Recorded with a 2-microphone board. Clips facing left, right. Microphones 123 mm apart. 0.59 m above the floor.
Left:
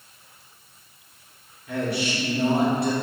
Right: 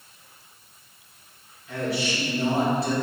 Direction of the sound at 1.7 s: 55° left (ahead or behind).